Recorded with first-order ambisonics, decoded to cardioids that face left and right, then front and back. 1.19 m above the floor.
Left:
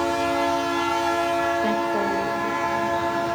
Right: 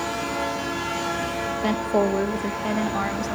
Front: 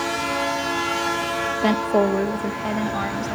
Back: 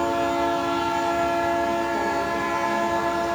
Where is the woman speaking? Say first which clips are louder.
Even, front 4 dB; 15° right, 0.8 m; by 3.4 s 60° right, 2 m.